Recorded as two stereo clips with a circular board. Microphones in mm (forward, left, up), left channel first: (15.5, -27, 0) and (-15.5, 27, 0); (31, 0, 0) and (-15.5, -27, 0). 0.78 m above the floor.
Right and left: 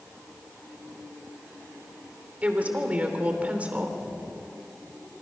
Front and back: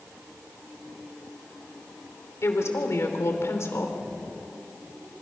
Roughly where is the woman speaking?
Ahead left.